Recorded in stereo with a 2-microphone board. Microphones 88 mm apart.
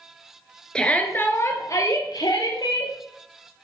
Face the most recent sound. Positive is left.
turn(degrees=65)  # may be behind; listen again after turning